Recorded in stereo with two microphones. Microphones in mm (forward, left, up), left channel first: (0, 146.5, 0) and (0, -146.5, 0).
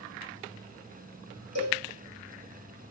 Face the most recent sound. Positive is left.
turn(degrees=-55)  # may be behind; listen again after turning